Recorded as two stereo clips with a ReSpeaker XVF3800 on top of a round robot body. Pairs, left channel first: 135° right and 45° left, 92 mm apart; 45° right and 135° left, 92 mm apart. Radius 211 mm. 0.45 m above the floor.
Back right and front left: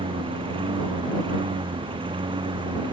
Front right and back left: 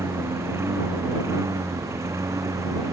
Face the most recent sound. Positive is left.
turn(degrees=80)